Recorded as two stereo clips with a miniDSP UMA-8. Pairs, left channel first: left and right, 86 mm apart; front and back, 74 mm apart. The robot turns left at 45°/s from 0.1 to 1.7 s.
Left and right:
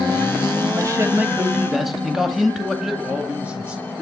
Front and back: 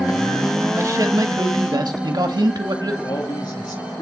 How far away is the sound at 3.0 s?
About 5 m.